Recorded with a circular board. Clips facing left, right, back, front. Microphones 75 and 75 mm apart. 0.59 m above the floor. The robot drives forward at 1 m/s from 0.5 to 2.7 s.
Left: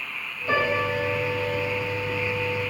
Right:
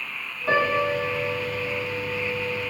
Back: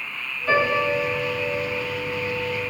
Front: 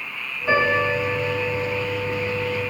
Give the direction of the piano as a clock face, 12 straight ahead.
3 o'clock.